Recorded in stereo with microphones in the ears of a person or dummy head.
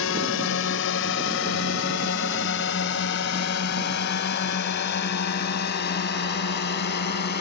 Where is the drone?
75° left (ahead or behind); by 7.4 s 55° left (ahead or behind).